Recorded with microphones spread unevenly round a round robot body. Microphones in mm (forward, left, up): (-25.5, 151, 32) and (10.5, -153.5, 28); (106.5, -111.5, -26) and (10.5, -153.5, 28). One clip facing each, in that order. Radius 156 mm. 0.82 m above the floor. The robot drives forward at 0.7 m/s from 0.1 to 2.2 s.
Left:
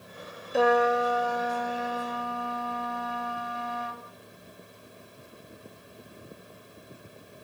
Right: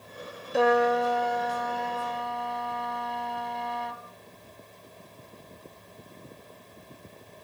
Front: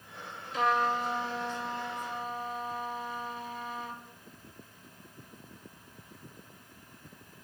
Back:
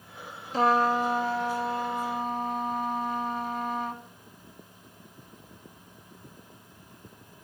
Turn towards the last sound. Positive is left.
turn(degrees=180)